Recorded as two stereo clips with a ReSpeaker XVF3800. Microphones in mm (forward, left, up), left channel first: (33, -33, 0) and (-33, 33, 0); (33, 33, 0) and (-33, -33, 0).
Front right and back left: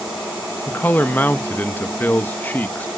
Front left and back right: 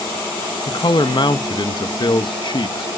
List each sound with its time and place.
0.7 s a man speaking: 20° left, 0.9 m